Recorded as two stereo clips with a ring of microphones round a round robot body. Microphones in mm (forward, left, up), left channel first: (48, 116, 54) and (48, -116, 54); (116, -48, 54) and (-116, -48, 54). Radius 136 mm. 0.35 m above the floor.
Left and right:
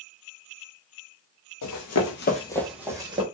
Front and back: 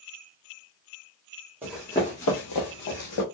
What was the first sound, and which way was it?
Running footsteps, 100° left.